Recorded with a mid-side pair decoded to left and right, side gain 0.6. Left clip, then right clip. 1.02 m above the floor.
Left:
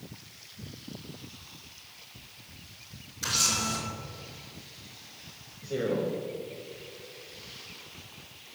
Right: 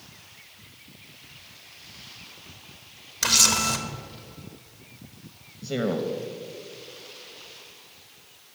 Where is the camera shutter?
65° right, 0.9 m.